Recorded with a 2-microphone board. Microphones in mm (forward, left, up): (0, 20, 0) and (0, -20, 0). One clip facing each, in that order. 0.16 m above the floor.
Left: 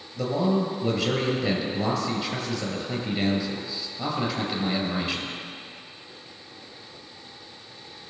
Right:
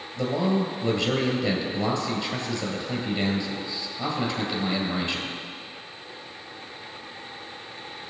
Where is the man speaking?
5° left (ahead or behind), 2.5 m.